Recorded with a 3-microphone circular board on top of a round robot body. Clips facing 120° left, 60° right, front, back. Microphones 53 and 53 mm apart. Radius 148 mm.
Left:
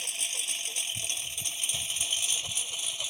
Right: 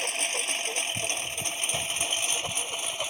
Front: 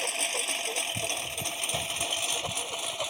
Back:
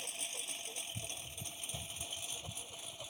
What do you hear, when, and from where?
0.0 s a lawn mower: 20° right; by 3.1 s 10° right